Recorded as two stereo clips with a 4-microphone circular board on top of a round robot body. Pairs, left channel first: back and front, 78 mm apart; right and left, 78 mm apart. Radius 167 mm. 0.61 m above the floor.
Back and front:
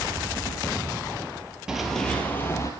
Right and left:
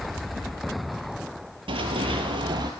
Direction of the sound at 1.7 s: 80° left.